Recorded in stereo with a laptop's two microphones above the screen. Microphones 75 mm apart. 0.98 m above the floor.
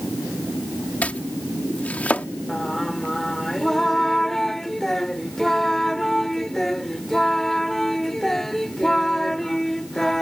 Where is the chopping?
20° left (ahead or behind).